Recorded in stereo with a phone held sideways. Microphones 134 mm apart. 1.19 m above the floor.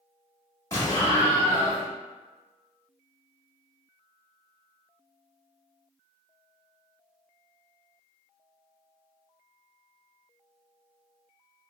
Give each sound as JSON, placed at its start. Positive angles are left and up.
{"t": 0.7, "sound": "an explosion", "side_deg": 25, "distance_m": 1.1}